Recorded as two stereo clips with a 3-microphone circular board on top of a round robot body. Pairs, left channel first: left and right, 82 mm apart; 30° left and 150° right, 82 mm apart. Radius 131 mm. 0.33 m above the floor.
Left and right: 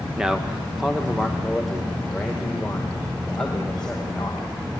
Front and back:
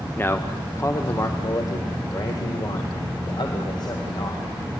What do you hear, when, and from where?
0.2 s a man speaking: 15° right, 1.3 m; by 4.5 s 10° left, 3 m